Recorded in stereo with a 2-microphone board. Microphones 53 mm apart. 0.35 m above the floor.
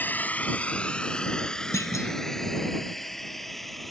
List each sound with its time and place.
0.0 s a drone: 35° left (ahead or behind); by 3.9 s 5° left (ahead or behind)
1.7 s a clunk: 75° left (ahead or behind)